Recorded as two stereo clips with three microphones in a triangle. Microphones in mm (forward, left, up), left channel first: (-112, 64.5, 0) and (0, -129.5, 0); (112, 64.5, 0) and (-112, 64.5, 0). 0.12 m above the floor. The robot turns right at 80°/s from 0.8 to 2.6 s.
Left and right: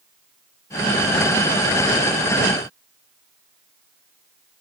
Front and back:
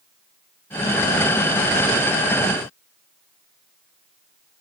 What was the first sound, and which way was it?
Only background noise.